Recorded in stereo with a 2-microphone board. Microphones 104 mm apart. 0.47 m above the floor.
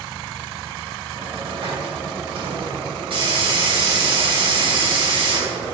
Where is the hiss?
60° right (ahead or behind), 3 m.